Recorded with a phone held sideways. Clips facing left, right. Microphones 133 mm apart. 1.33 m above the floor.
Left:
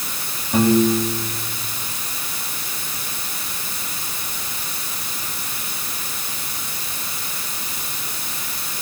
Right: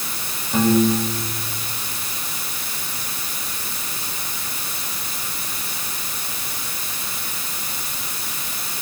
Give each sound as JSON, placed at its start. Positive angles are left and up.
{"t": 0.5, "sound": "a piano", "side_deg": 10, "distance_m": 6.5}